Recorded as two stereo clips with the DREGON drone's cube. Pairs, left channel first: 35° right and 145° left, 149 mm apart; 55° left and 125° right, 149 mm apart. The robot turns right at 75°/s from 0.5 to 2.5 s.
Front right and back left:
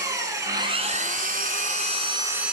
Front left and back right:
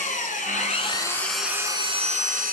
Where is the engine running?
80° left, 1.8 m; by 2.5 s 130° right, 1.8 m.